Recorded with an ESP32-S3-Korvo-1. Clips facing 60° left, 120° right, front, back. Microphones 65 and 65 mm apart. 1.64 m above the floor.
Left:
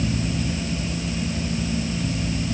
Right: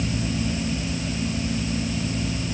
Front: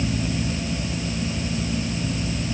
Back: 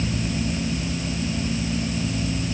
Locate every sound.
Only background noise.